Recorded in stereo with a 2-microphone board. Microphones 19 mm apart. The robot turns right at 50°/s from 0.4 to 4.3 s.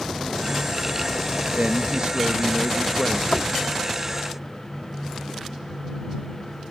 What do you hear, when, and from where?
1.5 s a man speaking: 75° right; by 3.2 s 10° left
3.3 s knocking: 45° left (ahead or behind); by 3.6 s 60° left (ahead or behind)